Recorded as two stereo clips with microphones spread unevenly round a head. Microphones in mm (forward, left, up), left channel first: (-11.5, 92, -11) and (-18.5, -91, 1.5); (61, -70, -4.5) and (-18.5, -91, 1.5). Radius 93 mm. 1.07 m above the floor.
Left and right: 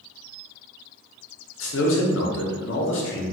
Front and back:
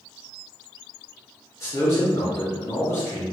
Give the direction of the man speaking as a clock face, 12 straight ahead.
9 o'clock.